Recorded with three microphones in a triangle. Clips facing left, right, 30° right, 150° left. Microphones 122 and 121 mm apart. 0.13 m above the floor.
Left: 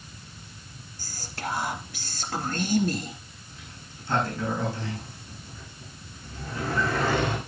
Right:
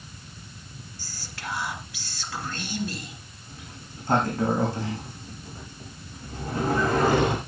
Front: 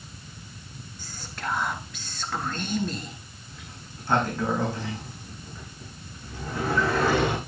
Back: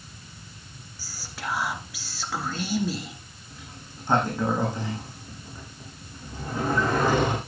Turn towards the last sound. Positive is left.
turn(degrees=-135)